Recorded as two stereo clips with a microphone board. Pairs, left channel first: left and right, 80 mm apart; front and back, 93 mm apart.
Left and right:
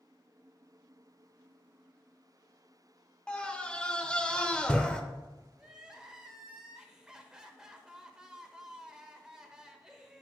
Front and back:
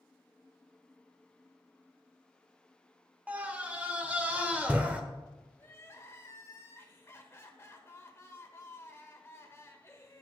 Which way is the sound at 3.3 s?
145° left.